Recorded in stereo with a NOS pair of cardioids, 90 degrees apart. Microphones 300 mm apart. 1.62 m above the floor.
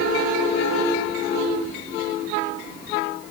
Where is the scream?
I don't hear a scream.